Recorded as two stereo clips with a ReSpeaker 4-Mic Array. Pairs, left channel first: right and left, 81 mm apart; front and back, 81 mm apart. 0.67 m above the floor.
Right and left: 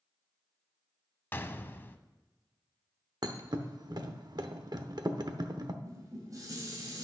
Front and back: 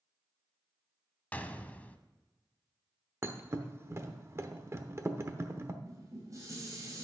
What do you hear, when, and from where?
1.3 s a gunshot: 55° right, 0.6 m
3.2 s a thud: 125° left, 0.8 m
5.8 s dishes clattering: 135° left, 2.5 m